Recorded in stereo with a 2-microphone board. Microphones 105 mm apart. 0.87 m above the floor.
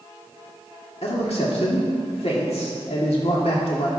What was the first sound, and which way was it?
A man speaking, 75° left (ahead or behind).